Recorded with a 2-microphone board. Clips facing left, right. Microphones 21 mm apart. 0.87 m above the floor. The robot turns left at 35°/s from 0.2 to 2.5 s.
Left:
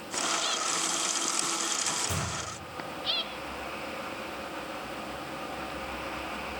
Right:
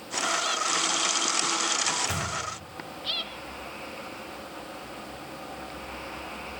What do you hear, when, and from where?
1.9 s a microwave: 65° right (ahead or behind), 1.4 m; by 2.3 s 75° right (ahead or behind), 1.4 m